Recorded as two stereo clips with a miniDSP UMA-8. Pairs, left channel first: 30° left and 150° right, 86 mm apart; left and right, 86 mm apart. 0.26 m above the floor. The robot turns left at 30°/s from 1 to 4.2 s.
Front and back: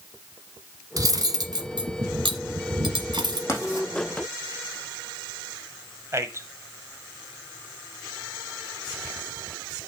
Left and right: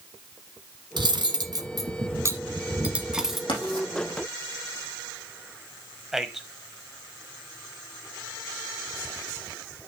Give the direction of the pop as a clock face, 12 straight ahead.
I don't hear a pop.